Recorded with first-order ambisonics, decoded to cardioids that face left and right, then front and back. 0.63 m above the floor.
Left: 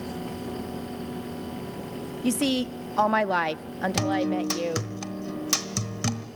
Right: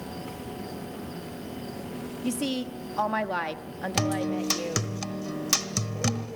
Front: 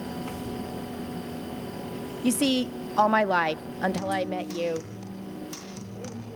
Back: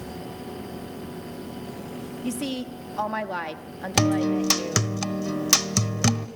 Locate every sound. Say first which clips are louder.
2.2 s a woman speaking: left 5 dB, front 7 dB; 40° left, 0.7 m
4.0 s a guitar: left 1 dB, back 6 dB; straight behind, 1.1 m